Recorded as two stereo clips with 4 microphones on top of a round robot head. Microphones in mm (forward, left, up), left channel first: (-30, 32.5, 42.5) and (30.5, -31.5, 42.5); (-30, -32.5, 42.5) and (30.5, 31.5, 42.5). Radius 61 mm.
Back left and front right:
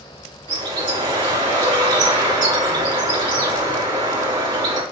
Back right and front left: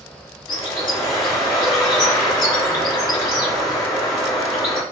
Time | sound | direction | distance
0.5 | a bird | 90° right | 3.5 m